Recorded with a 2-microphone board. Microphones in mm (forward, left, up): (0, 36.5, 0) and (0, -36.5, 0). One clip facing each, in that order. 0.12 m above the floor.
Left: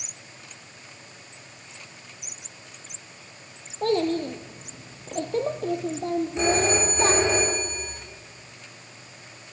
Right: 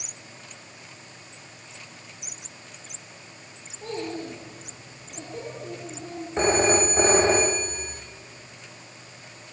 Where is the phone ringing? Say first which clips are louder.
Right 4 dB; 40° right (ahead or behind), 5.5 m.